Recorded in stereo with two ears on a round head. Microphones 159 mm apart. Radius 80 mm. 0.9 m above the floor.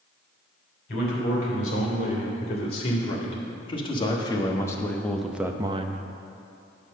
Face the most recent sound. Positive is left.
turn(degrees=-45)  # may be behind; listen again after turning